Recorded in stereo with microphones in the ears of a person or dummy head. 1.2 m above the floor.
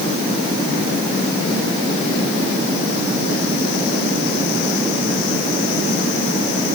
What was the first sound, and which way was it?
Only background noise.